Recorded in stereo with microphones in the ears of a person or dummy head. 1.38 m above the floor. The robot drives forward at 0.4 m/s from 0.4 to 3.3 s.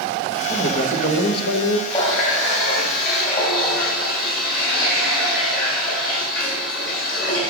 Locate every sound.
0.5 s a man speaking: 50° left (ahead or behind), 1.6 m; by 1.8 s 70° left (ahead or behind), 1.3 m
1.9 s a running tap: 45° left (ahead or behind), 3 m; by 7.5 s 55° left (ahead or behind), 3 m